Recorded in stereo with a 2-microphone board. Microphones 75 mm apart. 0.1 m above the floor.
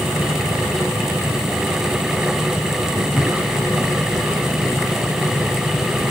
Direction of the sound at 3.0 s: 5° left (ahead or behind).